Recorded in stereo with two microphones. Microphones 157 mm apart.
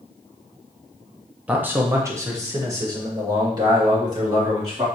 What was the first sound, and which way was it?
A man speaking, 10° right (ahead or behind).